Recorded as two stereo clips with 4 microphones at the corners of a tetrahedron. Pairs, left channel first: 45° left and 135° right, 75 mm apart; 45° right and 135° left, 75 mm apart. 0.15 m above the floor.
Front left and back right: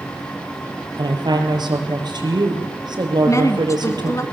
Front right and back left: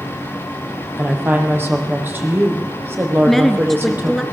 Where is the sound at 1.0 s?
160° right, 5.5 m.